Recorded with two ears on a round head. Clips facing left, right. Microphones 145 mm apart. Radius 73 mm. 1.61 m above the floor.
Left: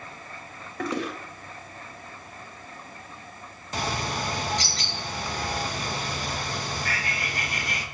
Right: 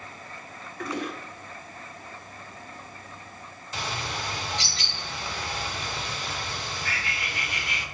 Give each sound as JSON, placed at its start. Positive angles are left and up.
{"t": 0.8, "sound": "a toilet flushing", "side_deg": 60, "distance_m": 1.4}
{"t": 3.7, "sound": "a bird", "side_deg": 40, "distance_m": 1.0}